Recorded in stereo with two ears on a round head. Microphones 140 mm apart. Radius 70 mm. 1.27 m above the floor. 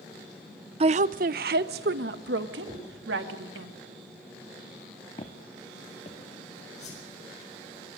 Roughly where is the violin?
No violin in this recording.